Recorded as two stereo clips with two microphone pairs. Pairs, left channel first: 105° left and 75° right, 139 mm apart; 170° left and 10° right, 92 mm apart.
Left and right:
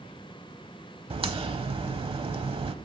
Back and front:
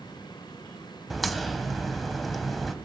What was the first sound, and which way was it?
A crack, 100° right.